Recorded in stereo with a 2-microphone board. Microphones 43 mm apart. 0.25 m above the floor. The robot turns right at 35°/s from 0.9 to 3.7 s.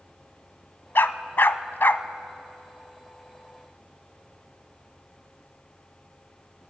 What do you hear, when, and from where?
0.9 s a dog barking: 60° left (ahead or behind), 0.6 m; by 2.0 s 55° left (ahead or behind), 0.6 m